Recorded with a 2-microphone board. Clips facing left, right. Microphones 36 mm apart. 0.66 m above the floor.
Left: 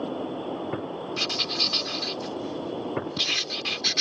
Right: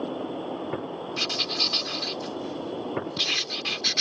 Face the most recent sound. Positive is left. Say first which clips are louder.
# even
turn(degrees=0)  # may be behind; listen again after turning